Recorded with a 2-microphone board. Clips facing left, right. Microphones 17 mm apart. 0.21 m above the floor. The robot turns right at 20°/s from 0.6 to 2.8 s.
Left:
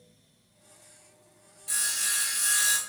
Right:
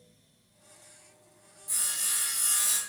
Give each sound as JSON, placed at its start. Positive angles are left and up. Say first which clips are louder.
{"t": 1.7, "sound": "sawing", "louder": "left 3 dB", "side_deg": 70, "distance_m": 0.6}